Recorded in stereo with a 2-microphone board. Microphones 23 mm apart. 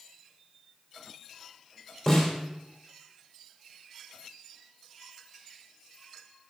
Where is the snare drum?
15° left (ahead or behind), 3 m.